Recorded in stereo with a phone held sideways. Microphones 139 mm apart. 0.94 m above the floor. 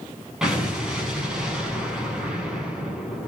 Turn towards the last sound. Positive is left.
turn(degrees=-5)  # may be behind; listen again after turning